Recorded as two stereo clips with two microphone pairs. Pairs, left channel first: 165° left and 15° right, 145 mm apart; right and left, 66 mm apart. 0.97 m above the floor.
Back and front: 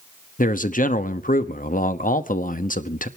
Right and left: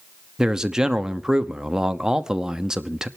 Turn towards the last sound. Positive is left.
turn(degrees=170)